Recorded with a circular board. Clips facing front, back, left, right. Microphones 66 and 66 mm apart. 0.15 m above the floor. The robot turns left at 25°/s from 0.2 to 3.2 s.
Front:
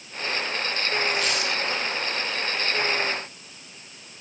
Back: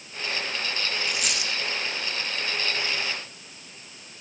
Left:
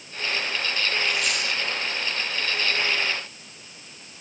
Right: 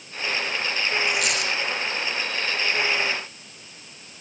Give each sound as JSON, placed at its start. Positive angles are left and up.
{"t": 1.1, "sound": "a dropped coin", "azimuth_deg": -100, "distance_m": 5.0}